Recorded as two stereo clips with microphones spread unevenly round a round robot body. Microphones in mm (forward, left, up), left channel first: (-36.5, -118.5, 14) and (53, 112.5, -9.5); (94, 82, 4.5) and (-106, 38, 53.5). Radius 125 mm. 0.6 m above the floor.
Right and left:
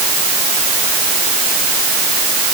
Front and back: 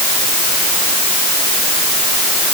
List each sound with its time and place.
Only background noise.